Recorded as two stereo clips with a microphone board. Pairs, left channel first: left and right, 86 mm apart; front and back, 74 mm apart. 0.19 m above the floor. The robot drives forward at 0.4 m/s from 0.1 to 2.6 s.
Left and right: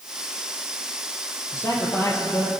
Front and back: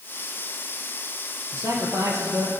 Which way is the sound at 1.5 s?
135° left.